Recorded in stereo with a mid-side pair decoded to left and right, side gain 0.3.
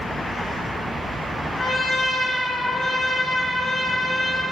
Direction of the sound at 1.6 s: 55° left.